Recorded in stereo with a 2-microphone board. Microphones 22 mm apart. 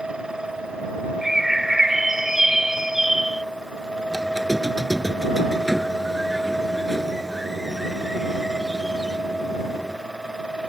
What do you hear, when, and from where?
1.2 s a bird: 15° right (ahead or behind)
4.1 s a squeak: 10° right (ahead or behind)